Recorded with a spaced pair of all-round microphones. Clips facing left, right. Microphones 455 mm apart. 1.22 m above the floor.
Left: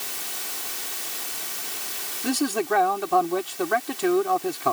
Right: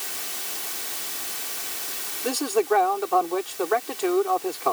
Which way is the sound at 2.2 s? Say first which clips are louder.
Right 1 dB; 40° left (ahead or behind).